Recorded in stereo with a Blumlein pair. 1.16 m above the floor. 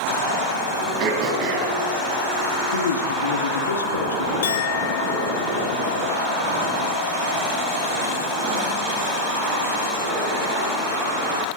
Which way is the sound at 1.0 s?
40° right.